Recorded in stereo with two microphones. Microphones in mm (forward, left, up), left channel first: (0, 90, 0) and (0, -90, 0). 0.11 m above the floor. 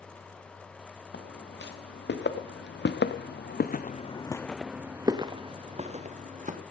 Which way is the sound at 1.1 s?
80° left.